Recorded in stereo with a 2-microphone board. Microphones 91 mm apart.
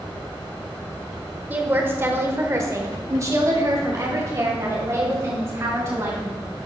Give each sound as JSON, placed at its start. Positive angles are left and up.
{"t": 1.5, "sound": "a woman speaking", "side_deg": -20, "distance_m": 1.2}